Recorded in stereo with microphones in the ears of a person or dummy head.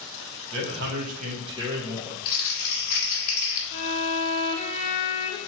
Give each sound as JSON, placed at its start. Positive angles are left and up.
{"t": 0.5, "sound": "a man speaking", "side_deg": -75, "distance_m": 1.4}
{"t": 2.2, "sound": "crumpling", "side_deg": 55, "distance_m": 1.6}
{"t": 3.7, "sound": "a violin", "side_deg": 35, "distance_m": 0.7}